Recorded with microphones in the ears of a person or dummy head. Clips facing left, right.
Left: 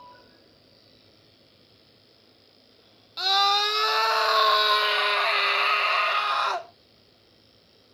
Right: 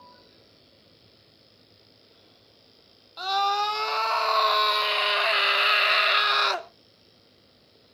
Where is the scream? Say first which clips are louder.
Even; 25° left (ahead or behind), 1.9 m; by 6.7 s 35° right (ahead or behind), 1.6 m.